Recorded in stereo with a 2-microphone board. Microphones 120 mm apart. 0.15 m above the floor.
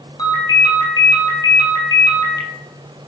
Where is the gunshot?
No gunshot in this recording.